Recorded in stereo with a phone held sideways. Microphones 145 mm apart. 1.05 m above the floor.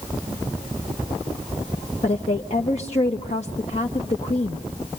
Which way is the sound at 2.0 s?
50° left (ahead or behind).